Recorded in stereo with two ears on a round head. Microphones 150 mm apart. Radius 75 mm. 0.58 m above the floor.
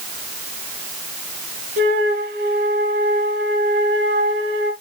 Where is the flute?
65° right (ahead or behind), 3.5 m.